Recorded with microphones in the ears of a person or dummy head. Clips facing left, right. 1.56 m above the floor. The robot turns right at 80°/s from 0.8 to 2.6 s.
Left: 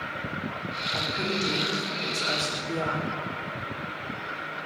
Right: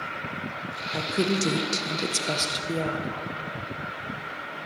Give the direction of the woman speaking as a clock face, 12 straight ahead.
5 o'clock.